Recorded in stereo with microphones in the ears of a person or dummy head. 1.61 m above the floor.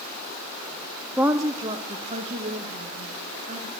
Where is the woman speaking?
5° left (ahead or behind), 0.7 m; by 3.7 s 30° right (ahead or behind), 3.5 m.